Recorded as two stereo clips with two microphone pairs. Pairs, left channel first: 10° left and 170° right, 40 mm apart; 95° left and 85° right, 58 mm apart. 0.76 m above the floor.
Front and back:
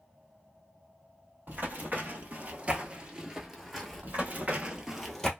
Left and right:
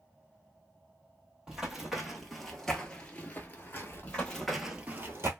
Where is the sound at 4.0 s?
160° left, 1.3 m; by 5.3 s 65° right, 1.1 m.